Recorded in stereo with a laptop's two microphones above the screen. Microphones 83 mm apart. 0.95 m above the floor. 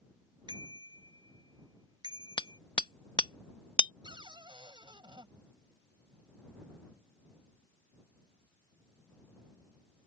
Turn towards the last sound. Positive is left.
turn(degrees=-70)  # may be behind; listen again after turning